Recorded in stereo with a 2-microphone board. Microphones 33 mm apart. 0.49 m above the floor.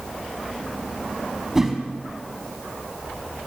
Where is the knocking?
No knocking in this recording.